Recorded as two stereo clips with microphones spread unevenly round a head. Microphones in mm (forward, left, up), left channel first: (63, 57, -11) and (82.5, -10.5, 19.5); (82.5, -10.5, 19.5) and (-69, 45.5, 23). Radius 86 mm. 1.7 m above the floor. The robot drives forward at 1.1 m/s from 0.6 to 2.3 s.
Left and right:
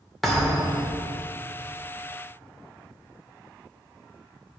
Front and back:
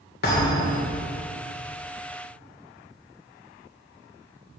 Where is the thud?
5° left, 2.5 m.